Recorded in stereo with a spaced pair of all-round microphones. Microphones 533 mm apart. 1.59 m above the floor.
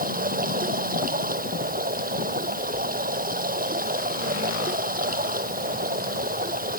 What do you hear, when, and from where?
0.0 s running water: 15° right (ahead or behind)